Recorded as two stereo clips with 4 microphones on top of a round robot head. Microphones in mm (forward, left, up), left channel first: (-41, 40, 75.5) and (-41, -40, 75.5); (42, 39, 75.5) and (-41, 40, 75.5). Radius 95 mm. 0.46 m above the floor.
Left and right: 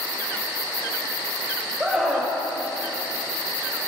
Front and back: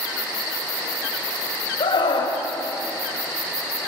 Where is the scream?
10° right, 3 m.